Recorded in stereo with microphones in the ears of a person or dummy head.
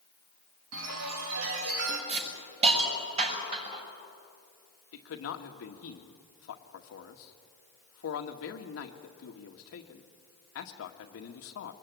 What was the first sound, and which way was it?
A chime, 80° right.